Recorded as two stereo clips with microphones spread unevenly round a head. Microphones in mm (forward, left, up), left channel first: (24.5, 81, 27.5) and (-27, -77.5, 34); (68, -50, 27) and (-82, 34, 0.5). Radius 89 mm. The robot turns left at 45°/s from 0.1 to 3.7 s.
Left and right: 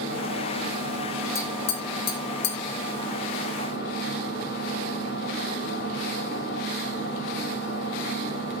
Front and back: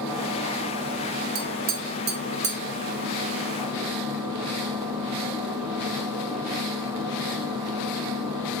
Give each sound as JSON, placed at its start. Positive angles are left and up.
{"t": 0.0, "sound": "an engine running", "azimuth_deg": -120, "distance_m": 7.5}
{"t": 1.4, "sound": "tapping", "azimuth_deg": 145, "distance_m": 2.5}